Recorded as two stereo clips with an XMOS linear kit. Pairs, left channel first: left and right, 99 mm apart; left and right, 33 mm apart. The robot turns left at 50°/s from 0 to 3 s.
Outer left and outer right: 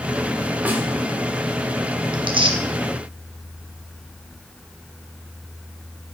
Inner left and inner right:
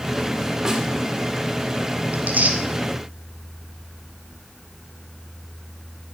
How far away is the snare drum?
About 1.5 m.